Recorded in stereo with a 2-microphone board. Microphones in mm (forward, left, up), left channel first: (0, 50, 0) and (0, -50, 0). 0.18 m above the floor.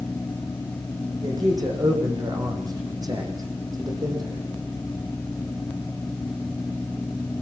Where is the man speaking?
40° right (ahead or behind), 8.5 m.